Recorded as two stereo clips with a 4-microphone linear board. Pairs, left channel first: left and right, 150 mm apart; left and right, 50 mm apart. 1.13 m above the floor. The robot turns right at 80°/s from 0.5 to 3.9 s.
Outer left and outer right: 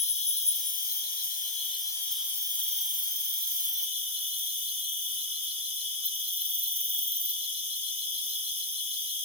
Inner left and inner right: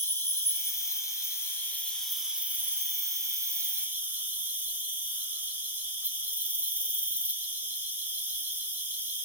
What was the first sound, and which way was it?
An insect, 50° left.